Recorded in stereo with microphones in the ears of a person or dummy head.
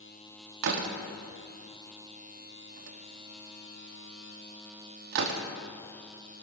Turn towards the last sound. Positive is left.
turn(degrees=-65)  # may be behind; listen again after turning